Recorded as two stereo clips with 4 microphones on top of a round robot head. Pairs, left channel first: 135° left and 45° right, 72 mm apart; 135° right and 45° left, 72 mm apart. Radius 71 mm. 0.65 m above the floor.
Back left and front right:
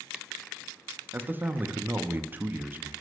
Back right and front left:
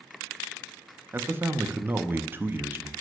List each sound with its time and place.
1.1 s a man speaking: straight ahead, 0.7 m